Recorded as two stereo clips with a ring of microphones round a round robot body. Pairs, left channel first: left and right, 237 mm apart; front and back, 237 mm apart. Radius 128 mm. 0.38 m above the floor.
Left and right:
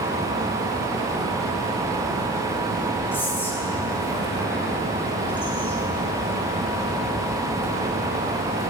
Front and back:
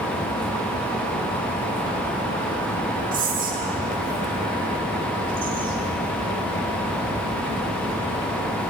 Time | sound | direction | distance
3.1 | whispering | 165° left | 1.3 m